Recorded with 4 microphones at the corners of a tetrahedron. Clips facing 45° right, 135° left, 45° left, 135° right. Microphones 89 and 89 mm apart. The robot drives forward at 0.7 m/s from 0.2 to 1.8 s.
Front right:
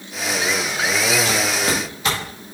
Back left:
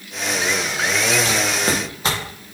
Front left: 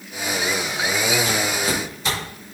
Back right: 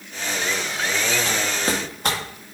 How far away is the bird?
I don't hear a bird.